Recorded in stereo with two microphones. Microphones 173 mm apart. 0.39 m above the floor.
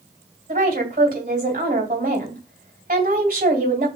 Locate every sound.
0.5 s a woman speaking: 55° right (ahead or behind), 2.5 m